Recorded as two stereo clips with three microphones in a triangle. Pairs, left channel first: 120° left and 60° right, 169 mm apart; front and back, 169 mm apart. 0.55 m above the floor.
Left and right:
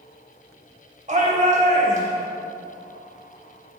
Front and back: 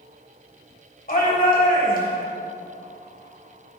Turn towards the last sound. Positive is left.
turn(degrees=-20)